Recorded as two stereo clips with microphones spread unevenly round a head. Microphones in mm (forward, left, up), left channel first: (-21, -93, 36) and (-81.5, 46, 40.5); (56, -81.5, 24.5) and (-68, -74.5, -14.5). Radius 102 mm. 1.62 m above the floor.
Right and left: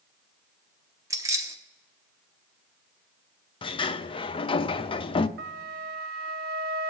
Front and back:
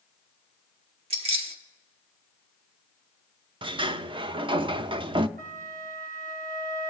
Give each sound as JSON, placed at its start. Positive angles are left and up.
{"t": 1.1, "sound": "keys jangling", "azimuth_deg": 150, "distance_m": 0.7}
{"t": 3.6, "sound": "a sliding door", "azimuth_deg": -125, "distance_m": 0.5}
{"t": 5.4, "sound": "a flute", "azimuth_deg": 115, "distance_m": 0.9}